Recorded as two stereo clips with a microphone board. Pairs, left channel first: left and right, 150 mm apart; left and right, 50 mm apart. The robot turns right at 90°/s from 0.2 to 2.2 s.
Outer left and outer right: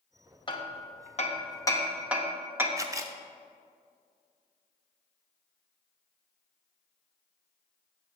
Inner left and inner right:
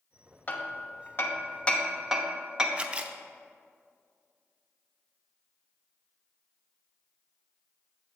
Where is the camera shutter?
20° right (ahead or behind), 0.5 m.